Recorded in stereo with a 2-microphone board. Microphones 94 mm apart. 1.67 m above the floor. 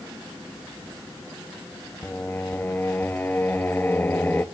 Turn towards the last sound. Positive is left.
turn(degrees=20)  # may be behind; listen again after turning